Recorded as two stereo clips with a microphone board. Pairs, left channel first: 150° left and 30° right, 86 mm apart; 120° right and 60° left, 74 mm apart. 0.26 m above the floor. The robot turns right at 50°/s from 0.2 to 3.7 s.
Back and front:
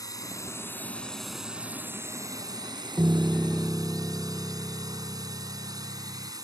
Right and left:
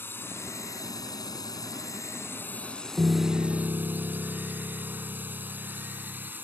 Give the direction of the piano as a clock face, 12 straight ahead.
11 o'clock.